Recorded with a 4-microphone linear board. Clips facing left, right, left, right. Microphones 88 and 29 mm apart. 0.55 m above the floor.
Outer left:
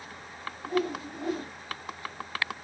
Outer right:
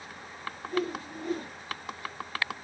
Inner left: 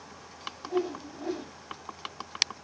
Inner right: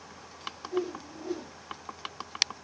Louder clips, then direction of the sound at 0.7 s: Outer left 2 dB, inner left 2 dB; 80° left.